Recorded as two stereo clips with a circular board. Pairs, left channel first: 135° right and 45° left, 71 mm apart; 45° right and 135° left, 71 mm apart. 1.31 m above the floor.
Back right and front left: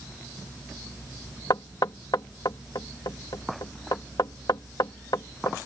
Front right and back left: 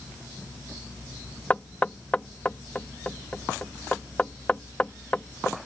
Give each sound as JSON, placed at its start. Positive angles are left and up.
{"t": 1.5, "sound": "knocking", "azimuth_deg": -115}